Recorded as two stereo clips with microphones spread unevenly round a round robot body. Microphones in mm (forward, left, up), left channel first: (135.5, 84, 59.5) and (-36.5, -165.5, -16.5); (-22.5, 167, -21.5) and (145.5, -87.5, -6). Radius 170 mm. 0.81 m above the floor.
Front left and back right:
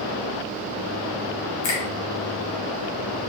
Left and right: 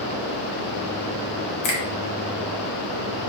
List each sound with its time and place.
1.6 s a finger snap: 100° left, 0.9 m